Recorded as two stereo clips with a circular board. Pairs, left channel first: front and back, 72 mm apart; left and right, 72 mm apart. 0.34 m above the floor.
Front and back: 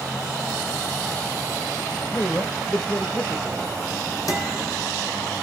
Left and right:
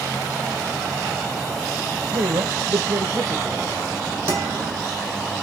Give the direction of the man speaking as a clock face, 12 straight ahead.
2 o'clock.